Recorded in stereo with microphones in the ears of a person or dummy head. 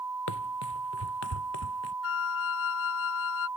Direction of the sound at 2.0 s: 65° left (ahead or behind).